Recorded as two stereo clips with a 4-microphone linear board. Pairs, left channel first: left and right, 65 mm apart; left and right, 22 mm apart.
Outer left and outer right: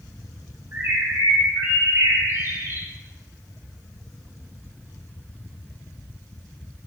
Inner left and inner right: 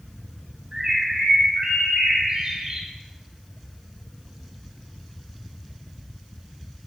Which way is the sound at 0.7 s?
45° right (ahead or behind).